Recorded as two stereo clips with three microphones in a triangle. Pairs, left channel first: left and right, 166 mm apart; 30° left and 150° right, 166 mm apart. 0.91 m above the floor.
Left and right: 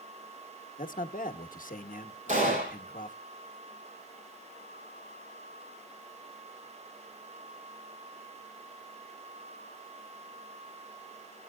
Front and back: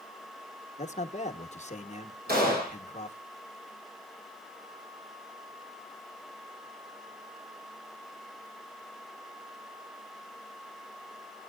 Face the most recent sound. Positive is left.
turn(degrees=-130)